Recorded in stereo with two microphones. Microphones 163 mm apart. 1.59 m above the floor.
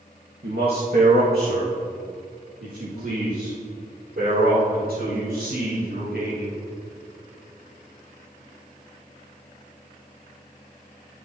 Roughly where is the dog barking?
No dog barking in this recording.